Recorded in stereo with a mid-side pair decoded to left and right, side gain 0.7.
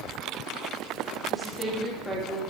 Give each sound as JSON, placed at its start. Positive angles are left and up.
{"t": 1.3, "sound": "a woman speaking", "azimuth_deg": 10, "distance_m": 2.0}